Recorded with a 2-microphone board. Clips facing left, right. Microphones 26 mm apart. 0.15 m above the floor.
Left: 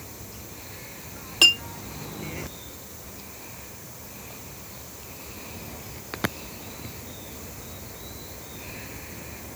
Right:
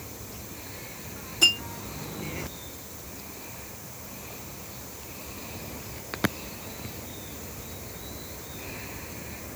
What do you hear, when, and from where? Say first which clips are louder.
1.4 s a clink: left 4 dB; 75° left (ahead or behind), 3 m